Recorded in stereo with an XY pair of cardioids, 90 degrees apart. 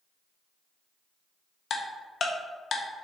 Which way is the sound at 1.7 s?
55° left.